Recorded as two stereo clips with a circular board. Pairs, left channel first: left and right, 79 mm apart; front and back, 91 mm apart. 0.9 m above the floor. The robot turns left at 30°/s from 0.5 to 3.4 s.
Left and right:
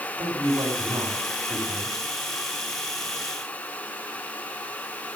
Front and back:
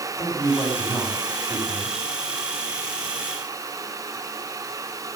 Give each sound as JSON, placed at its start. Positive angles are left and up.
{"t": 0.2, "sound": "a man speaking", "azimuth_deg": -60, "distance_m": 7.5}